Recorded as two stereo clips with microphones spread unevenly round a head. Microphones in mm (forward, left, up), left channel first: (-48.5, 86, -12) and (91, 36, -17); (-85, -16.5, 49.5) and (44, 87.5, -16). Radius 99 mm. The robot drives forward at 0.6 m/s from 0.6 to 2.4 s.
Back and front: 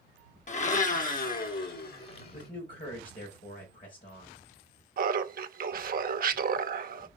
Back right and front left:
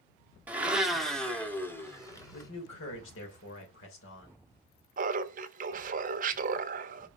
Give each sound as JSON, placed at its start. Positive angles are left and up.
{"t": 0.5, "sound": "a blender", "azimuth_deg": 120, "distance_m": 1.2}
{"t": 2.3, "sound": "a man speaking", "azimuth_deg": -145, "distance_m": 3.5}
{"t": 5.0, "sound": "laughter", "azimuth_deg": 5, "distance_m": 0.9}